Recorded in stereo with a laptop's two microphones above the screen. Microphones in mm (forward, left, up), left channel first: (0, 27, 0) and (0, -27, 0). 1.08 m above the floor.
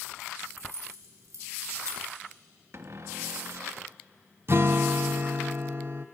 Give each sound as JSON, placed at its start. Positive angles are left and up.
{"t": 0.6, "sound": "keys jangling", "side_deg": -70, "distance_m": 3.5}
{"t": 2.7, "sound": "a cupboard door", "side_deg": -55, "distance_m": 0.9}
{"t": 4.5, "sound": "a guitar", "side_deg": -50, "distance_m": 0.6}